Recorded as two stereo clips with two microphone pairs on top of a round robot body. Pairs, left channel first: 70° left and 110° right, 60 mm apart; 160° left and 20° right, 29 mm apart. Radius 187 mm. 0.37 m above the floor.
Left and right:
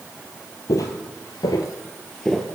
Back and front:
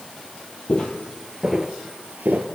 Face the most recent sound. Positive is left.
turn(degrees=-15)